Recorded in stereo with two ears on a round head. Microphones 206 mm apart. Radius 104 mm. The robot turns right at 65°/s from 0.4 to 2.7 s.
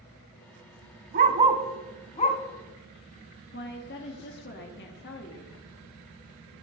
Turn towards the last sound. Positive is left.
turn(degrees=50)  # may be behind; listen again after turning